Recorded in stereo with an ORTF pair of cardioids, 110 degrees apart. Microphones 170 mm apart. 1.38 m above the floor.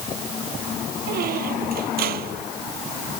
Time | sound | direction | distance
1.1 | a squeak | 65° right | ?